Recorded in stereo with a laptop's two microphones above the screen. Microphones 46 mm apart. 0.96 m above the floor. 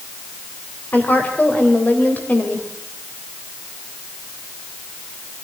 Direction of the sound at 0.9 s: 40° left (ahead or behind).